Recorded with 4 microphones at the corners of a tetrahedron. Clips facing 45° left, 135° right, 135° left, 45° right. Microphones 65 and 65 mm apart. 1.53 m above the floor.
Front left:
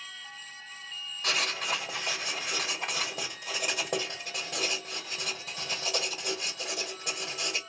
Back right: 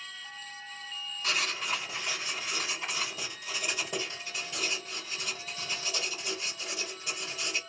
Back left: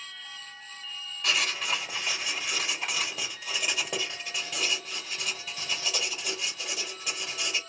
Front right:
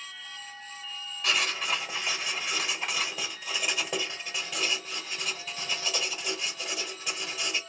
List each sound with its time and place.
1.2 s writing: 45° left, 2 m